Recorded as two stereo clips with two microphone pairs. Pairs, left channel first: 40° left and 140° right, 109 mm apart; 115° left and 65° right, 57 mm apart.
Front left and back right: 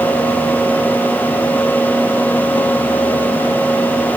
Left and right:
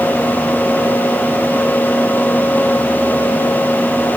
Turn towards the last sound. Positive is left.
No sound to turn to.